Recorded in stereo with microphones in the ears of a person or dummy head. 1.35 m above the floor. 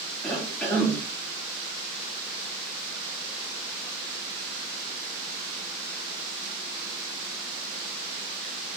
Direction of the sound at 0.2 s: Centre (ahead or behind).